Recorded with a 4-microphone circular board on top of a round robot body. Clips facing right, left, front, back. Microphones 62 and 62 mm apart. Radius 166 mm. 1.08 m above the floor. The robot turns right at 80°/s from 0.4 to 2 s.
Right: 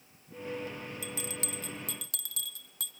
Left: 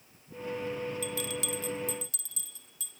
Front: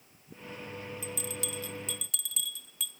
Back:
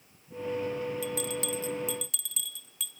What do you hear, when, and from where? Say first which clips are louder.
1.0 s a bell: left 5 dB, back 6 dB; 170° right, 1.6 m; by 2.9 s 90° right, 1.6 m